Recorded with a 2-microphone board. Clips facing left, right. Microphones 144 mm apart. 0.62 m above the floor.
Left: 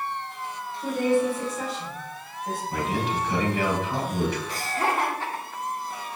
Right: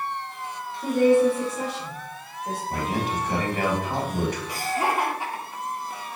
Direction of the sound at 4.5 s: 10° right (ahead or behind).